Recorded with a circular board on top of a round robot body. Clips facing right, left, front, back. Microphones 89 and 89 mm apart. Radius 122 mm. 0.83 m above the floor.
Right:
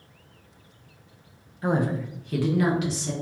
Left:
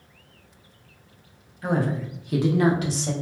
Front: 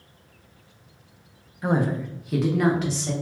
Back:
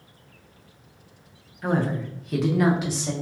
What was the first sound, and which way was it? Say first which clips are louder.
A woman speaking: even, front 1 dB; 60° right.